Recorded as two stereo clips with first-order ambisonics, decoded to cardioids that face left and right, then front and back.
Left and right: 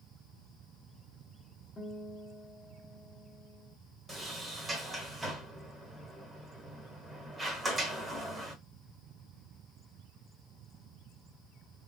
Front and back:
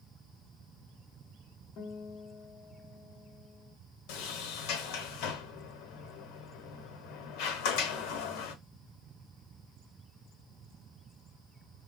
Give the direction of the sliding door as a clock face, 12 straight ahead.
1 o'clock.